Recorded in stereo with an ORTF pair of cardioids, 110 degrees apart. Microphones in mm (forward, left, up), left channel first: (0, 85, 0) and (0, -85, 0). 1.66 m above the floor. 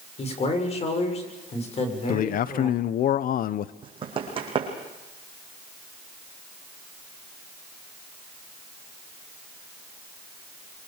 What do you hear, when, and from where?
0.2 s a man speaking: 40° left, 6.5 m
2.1 s a man speaking: 60° left, 0.9 m
3.8 s running footsteps: 30° right, 5.5 m